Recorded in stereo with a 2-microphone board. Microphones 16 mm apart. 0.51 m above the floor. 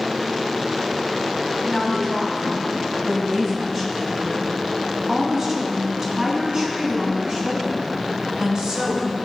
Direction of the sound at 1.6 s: 20° left (ahead or behind).